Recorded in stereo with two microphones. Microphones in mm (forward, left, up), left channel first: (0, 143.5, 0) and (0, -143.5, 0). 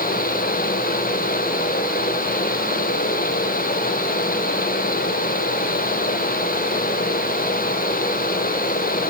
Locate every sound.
Only background noise.